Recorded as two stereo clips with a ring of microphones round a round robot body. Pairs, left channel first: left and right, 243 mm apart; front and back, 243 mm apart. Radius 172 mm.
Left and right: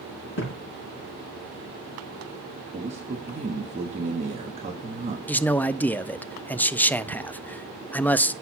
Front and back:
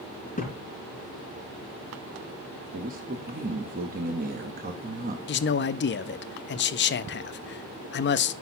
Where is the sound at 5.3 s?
10° left, 0.5 m.